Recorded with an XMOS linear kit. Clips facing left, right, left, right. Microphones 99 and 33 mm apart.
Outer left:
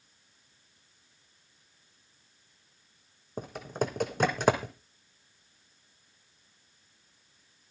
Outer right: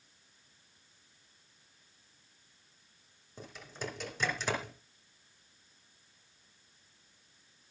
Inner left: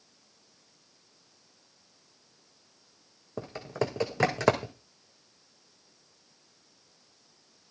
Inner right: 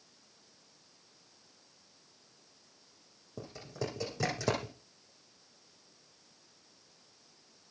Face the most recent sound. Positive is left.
turn(degrees=55)  # may be behind; listen again after turning